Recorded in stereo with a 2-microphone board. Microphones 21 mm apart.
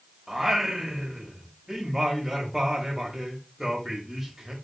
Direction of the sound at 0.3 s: 15° right (ahead or behind).